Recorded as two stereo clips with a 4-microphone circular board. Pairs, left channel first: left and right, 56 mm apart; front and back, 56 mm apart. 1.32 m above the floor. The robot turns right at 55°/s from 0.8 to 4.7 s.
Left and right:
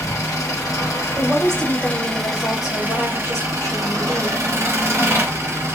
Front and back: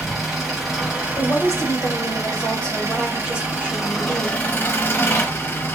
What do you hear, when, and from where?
0.0 s an engine running: 95° left, 1.1 m; by 5.8 s 50° right, 1.1 m
1.2 s a woman speaking: 5° right, 0.9 m; by 4.4 s 170° left, 0.9 m